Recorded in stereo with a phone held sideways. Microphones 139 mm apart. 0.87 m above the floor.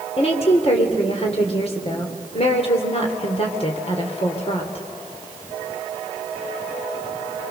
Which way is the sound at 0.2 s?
45° left (ahead or behind).